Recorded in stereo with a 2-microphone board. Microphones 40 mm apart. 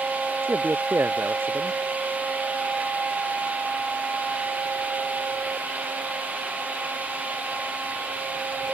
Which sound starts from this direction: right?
A man speaking, at 0.4 s.